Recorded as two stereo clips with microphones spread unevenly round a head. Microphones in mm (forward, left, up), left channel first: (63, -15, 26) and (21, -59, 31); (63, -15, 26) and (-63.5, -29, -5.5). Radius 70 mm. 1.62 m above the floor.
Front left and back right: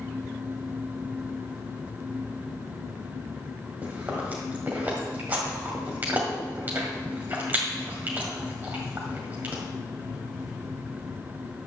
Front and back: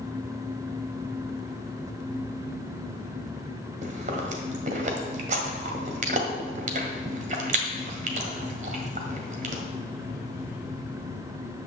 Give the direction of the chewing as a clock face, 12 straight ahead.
6 o'clock.